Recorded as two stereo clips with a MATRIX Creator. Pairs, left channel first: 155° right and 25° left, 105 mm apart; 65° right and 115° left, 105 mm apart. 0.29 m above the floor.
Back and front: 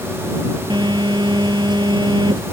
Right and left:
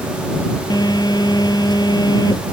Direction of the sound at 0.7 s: 20° right.